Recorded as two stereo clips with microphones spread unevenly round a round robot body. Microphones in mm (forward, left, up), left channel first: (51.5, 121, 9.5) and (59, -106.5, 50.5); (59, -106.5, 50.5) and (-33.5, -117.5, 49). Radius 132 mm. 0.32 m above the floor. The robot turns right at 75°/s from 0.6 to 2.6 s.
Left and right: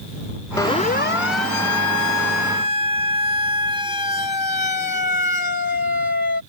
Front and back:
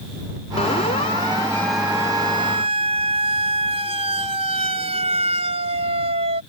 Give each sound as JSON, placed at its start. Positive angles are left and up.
{"t": 0.6, "sound": "a siren", "azimuth_deg": 15}